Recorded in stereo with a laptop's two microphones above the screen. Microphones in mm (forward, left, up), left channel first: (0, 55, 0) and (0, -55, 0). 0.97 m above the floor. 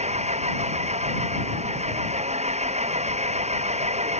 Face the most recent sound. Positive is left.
turn(degrees=-80)